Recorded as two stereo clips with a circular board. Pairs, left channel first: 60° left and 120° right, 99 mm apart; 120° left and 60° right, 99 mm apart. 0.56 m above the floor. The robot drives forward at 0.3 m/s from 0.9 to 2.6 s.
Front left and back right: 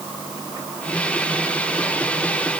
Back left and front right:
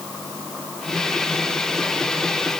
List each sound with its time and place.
Only background noise.